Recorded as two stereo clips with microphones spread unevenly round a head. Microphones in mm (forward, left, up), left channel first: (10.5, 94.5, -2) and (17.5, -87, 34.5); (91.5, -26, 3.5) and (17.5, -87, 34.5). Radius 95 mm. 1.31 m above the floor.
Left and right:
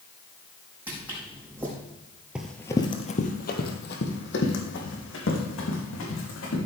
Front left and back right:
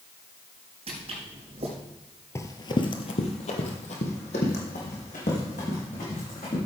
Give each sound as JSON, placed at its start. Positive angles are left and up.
{"t": 0.9, "sound": "footsteps", "azimuth_deg": -165, "distance_m": 4.5}
{"t": 2.4, "sound": "running footsteps", "azimuth_deg": -30, "distance_m": 1.4}